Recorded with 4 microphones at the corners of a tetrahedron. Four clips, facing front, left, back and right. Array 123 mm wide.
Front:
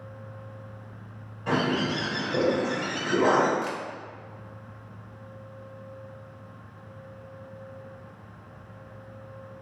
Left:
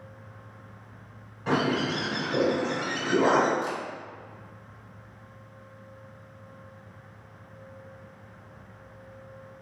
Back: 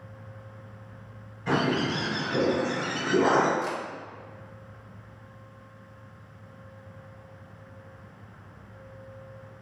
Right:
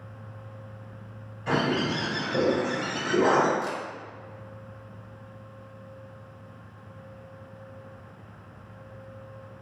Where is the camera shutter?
75° right, 0.7 m.